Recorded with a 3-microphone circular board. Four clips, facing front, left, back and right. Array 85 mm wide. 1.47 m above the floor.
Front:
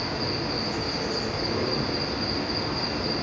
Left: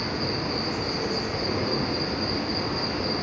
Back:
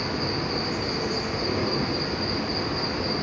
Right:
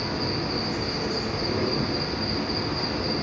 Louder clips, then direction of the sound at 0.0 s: Even, back 1 dB; 155° left.